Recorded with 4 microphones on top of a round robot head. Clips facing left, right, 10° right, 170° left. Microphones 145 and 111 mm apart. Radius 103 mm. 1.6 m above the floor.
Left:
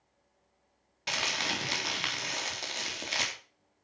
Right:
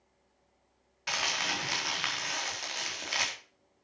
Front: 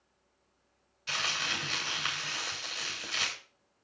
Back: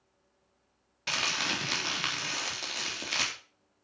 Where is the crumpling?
150° left, 4.5 m.